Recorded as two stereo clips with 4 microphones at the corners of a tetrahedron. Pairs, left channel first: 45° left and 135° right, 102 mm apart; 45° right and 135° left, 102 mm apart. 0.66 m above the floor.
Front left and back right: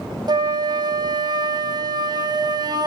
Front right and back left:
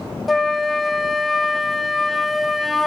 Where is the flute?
135° right, 0.8 m.